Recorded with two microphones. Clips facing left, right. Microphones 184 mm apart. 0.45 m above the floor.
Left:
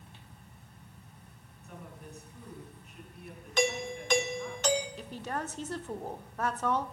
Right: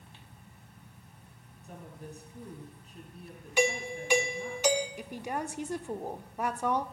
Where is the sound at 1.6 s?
35° right (ahead or behind), 4.5 m.